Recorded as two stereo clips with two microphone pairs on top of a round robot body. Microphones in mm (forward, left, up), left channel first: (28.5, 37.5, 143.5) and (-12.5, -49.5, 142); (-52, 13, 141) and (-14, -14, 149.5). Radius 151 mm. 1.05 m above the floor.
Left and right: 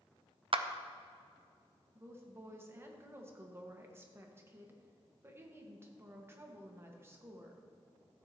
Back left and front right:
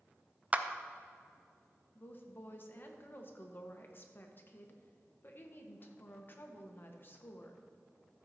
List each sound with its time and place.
0.5 s a clap: 100° right, 0.7 m
1.9 s a woman speaking: straight behind, 1.4 m